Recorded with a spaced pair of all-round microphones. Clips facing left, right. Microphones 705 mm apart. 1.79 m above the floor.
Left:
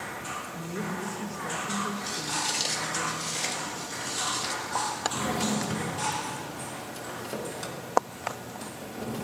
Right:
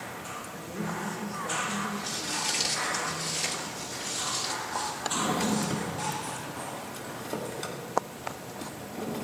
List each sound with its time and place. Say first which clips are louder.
0.5 s a woman speaking: left 1 dB; 60° left (ahead or behind), 1.6 m
2.0 s footsteps: left 1 dB; 30° right (ahead or behind), 2.5 m
5.0 s a drawer: right 1 dB; 40° left (ahead or behind), 2 m